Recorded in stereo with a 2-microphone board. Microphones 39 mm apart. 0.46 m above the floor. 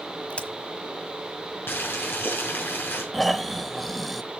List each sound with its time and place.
0.3 s a crack: 35° left (ahead or behind), 1.3 m
1.7 s boiling: 75° left (ahead or behind), 4.5 m
3.1 s snoring: 5° left (ahead or behind), 0.8 m